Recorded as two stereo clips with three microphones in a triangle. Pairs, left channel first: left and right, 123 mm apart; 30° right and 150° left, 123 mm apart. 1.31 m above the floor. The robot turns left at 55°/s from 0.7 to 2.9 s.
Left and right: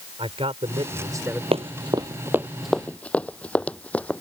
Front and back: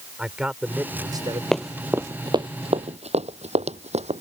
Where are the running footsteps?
115° right; by 4.2 s 170° left.